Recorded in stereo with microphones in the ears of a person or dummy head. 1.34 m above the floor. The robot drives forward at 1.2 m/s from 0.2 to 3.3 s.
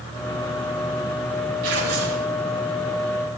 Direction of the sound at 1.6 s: 85° right.